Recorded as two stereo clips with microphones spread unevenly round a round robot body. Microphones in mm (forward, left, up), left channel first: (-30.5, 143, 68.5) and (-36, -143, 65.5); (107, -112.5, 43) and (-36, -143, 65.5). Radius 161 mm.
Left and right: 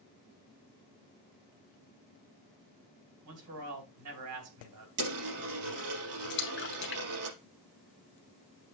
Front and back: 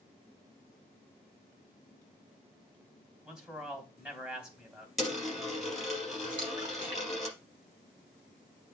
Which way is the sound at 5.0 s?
80° right.